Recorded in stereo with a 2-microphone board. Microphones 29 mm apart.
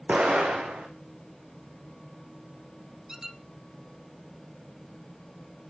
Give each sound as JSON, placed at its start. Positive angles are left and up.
{"t": 0.1, "sound": "an explosion", "side_deg": -55, "distance_m": 4.0}
{"t": 3.1, "sound": "a squeak", "side_deg": -15, "distance_m": 1.4}